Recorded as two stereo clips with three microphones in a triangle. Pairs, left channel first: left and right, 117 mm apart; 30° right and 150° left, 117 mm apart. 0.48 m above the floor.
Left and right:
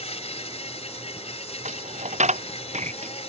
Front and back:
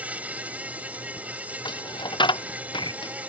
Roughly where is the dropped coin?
Right.